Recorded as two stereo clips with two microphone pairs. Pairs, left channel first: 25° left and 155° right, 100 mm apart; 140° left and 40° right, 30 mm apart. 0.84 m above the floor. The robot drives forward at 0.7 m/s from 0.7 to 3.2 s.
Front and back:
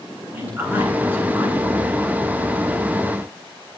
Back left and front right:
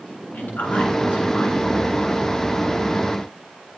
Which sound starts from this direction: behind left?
A man speaking, at 0.3 s.